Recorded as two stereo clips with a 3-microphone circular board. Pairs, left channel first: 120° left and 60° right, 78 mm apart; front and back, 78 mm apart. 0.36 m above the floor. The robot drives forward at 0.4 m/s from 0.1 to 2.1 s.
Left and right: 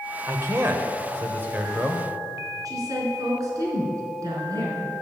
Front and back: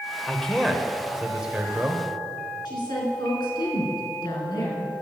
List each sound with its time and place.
0.3 s a man speaking: 75° right, 1.3 m; by 2.0 s 120° right, 1.4 m
2.6 s a woman speaking: 20° right, 4 m